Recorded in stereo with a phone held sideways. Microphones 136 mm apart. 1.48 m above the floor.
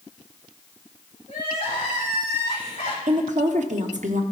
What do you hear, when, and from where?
1.3 s crying: 40° left (ahead or behind), 3 m
3.1 s a woman speaking: 65° right (ahead or behind), 0.8 m